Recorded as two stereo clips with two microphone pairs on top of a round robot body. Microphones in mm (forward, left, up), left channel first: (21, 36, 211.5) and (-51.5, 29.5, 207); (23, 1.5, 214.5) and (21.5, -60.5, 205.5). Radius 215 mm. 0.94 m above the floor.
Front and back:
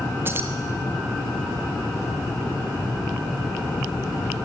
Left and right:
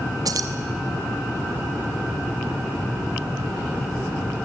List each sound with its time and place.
0.2 s keys jangling: 115° right, 1.1 m